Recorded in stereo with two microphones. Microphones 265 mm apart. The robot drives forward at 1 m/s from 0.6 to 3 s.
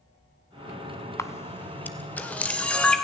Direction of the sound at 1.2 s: 10° left (ahead or behind).